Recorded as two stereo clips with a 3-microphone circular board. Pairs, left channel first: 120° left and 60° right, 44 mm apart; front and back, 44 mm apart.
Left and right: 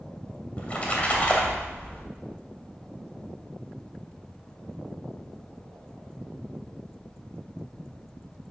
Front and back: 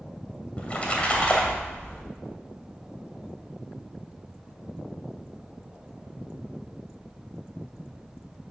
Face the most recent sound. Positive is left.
turn(degrees=60)